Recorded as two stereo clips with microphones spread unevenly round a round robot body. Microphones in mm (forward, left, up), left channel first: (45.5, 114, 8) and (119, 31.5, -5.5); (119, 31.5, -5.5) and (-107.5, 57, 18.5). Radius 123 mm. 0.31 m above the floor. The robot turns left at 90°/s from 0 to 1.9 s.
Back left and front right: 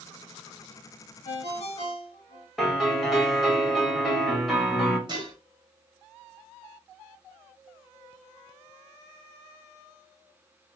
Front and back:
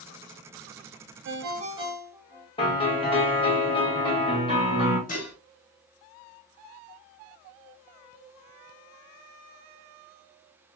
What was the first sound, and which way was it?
A ringtone, 150° left.